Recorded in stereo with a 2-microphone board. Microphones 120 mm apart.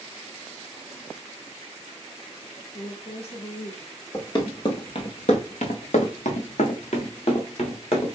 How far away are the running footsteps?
About 1.6 m.